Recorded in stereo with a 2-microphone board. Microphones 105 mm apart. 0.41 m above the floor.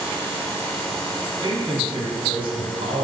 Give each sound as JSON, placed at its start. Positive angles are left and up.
{"t": 1.4, "sound": "a man speaking", "side_deg": -50, "distance_m": 4.5}